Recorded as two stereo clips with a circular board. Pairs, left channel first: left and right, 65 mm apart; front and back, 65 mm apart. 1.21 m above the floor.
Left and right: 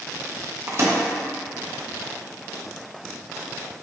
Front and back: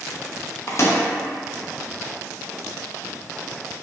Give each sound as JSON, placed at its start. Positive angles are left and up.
{"t": 0.7, "sound": "a microwave", "azimuth_deg": -45, "distance_m": 0.7}